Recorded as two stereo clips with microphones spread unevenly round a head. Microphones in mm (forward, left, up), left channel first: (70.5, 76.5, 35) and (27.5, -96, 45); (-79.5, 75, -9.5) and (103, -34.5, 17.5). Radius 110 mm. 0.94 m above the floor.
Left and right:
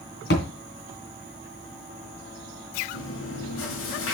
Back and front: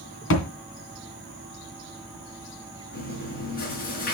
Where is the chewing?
100° left, 6.5 m.